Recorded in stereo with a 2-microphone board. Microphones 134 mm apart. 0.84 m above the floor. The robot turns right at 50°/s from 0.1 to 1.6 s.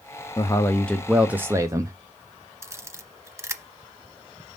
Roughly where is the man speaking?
Behind left.